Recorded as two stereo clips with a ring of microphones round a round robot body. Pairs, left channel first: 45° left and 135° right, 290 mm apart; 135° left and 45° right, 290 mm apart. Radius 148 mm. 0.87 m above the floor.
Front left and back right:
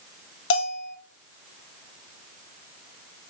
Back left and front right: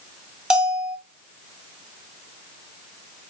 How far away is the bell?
About 0.9 m.